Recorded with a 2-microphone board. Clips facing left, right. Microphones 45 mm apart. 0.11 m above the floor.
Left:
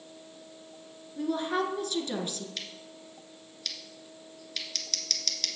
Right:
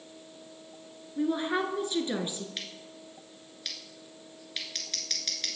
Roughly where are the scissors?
Centre.